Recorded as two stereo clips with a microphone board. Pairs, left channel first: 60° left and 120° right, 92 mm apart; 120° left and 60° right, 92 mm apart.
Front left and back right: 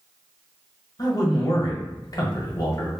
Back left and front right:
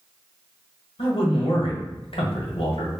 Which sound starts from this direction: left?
A man speaking, at 1.0 s.